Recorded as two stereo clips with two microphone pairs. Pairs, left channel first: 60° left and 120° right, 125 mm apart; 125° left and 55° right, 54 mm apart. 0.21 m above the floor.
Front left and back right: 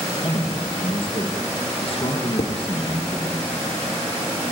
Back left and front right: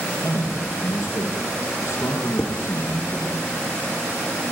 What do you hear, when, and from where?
0.2 s a man speaking: 100° left, 4.5 m
2.4 s dishes clattering: 60° left, 2.5 m